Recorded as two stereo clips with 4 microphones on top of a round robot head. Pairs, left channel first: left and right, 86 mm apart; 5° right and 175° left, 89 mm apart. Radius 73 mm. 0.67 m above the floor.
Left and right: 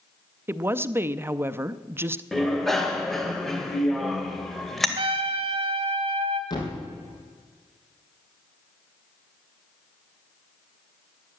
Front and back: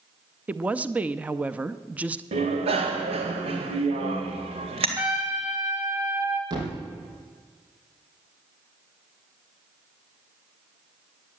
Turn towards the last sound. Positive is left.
turn(degrees=130)